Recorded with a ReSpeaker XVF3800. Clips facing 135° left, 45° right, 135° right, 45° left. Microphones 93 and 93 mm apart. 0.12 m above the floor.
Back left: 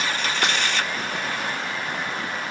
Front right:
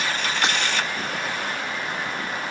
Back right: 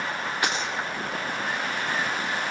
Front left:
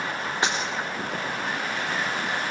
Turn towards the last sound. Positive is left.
turn(degrees=110)